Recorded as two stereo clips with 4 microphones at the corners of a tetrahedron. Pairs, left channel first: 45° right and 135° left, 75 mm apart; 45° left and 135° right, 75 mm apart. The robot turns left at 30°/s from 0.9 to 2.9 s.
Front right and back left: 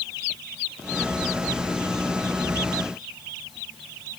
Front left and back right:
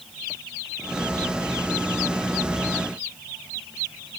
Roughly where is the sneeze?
No sneeze in this recording.